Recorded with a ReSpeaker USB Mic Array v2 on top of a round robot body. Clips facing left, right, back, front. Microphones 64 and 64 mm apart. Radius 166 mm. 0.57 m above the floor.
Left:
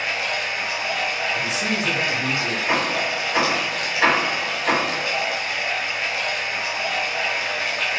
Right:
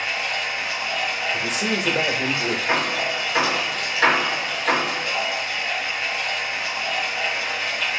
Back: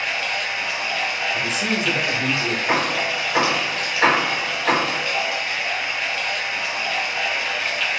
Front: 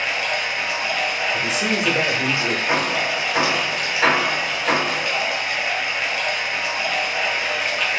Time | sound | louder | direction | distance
0.0 | running water | left 1 dB, front 2 dB | 70° left | 1.3 m
1.3 | a man speaking | even, front 1 dB | 75° right | 0.9 m
2.7 | hammering | left 2 dB, back 2 dB | 150° left | 2 m